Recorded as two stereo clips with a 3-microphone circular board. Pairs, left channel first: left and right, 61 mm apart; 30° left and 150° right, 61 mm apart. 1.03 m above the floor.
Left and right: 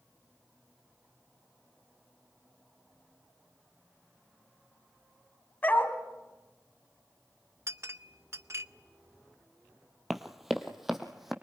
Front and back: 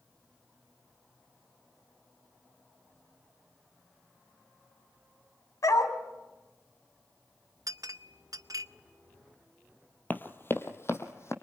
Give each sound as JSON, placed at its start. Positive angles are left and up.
{"t": 5.6, "sound": "a dog barking", "azimuth_deg": 35, "distance_m": 2.0}
{"t": 7.7, "sound": "a clink", "azimuth_deg": -130, "distance_m": 0.6}
{"t": 10.1, "sound": "running footsteps", "azimuth_deg": -5, "distance_m": 1.2}